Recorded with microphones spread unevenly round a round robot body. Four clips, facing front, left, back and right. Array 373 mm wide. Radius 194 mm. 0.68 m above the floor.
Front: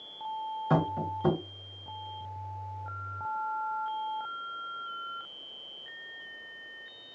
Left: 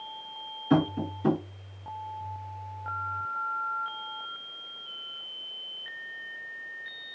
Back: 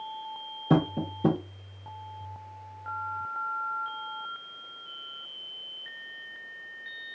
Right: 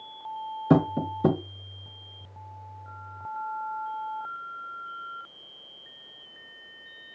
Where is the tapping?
115° right, 1.1 m.